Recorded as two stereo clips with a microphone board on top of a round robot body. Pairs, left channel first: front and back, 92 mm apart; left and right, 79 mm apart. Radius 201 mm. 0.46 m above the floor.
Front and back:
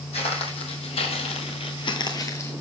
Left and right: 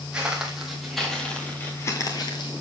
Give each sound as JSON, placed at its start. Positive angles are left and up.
{"t": 0.1, "sound": "footsteps", "azimuth_deg": -10, "distance_m": 1.8}